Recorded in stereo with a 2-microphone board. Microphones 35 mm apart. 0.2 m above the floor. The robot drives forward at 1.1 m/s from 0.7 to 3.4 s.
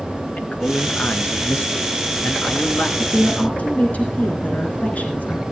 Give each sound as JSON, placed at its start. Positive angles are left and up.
{"t": 0.4, "sound": "a man speaking", "side_deg": 55, "distance_m": 2.5}
{"t": 3.0, "sound": "a woman speaking", "side_deg": 50, "distance_m": 2.5}